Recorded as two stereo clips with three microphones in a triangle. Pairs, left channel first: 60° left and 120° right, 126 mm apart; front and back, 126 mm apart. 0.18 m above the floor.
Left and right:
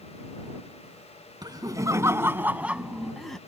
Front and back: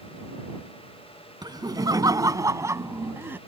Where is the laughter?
150° right; by 3.4 s 140° left.